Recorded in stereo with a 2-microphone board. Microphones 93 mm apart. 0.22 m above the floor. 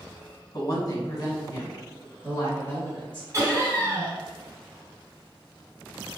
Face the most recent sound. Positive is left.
turn(degrees=-30)  # may be behind; listen again after turning